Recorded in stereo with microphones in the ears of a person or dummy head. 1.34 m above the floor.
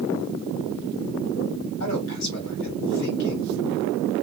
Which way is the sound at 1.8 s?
50° left (ahead or behind).